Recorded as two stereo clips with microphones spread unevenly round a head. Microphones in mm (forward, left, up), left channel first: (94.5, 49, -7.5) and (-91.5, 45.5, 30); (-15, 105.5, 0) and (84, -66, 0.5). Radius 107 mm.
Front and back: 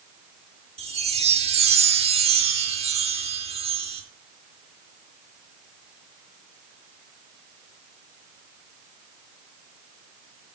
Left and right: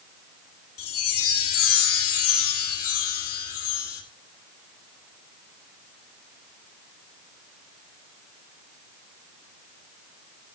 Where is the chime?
130° left, 2 m.